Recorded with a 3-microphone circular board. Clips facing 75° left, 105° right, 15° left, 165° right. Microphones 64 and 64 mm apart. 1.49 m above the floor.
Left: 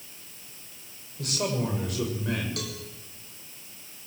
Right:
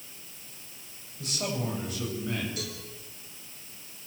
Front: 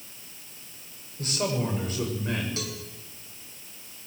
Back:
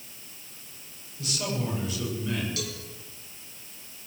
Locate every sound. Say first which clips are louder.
1.2 s a man speaking: left 4 dB, front 3 dB; 60° left, 7.5 m
2.6 s a cowbell: left 2 dB, even; 70° left, 4 m